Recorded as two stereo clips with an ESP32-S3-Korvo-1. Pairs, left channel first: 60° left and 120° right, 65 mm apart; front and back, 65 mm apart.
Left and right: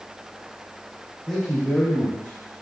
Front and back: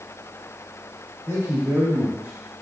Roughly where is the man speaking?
Behind left.